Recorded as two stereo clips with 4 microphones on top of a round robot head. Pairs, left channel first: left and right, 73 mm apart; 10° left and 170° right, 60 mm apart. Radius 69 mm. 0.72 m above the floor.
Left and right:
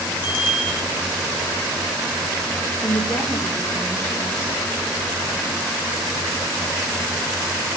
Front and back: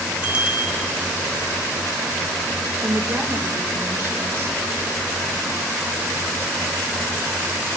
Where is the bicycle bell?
120° left, 8 m.